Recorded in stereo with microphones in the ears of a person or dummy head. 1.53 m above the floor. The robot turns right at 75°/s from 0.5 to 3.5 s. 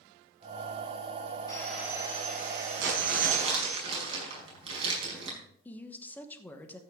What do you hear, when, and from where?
1.5 s sawing: 160° left, 2.5 m; by 3.8 s 50° right, 2.5 m
2.8 s crumpling: 90° right, 5.5 m; by 5.4 s 35° right, 5.5 m
5.7 s a woman speaking: 5° left (ahead or behind), 1.2 m